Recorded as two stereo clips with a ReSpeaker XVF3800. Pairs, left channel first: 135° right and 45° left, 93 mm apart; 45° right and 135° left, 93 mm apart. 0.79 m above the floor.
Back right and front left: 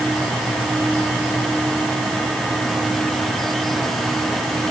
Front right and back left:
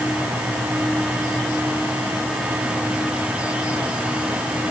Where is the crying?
No crying in this recording.